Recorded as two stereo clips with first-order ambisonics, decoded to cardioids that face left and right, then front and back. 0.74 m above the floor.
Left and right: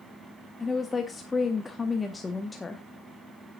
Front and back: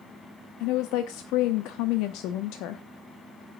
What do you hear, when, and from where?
0.6 s a woman speaking: 10° left, 0.8 m